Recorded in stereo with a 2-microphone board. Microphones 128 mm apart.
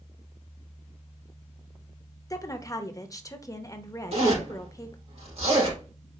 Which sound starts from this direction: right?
A zipper, at 4.1 s.